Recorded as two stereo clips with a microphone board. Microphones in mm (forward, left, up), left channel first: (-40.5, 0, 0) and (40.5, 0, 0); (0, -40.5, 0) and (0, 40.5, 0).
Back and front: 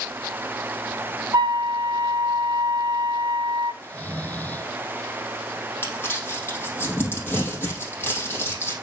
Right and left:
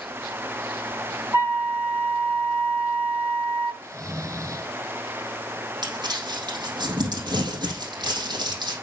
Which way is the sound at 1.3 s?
30° left.